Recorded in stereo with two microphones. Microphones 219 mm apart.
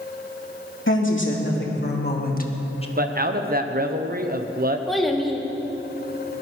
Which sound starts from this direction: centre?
A child speaking, at 4.9 s.